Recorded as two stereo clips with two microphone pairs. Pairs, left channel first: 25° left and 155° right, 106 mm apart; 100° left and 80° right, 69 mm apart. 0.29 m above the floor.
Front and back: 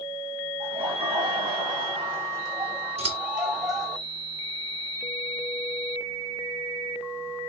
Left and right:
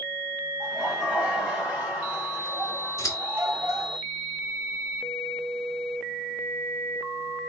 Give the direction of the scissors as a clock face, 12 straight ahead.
8 o'clock.